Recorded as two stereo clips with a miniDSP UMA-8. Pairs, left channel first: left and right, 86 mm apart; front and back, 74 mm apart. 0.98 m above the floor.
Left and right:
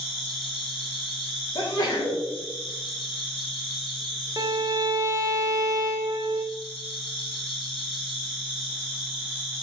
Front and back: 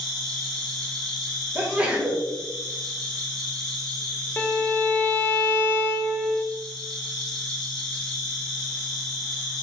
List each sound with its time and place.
0.0 s an insect: 85° left, 1.6 m
1.6 s a sneeze: 110° left, 1.2 m
4.4 s a violin: 60° right, 0.6 m